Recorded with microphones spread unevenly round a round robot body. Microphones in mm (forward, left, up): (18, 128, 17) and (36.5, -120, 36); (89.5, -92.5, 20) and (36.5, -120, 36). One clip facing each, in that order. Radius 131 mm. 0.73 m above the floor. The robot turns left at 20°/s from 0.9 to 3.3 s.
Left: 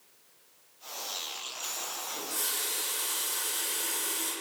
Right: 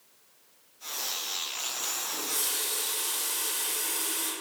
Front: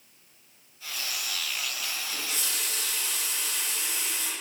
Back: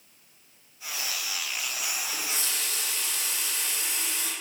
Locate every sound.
2.1 s a running tap: 100° right, 1.3 m; by 4.3 s 125° right, 1.3 m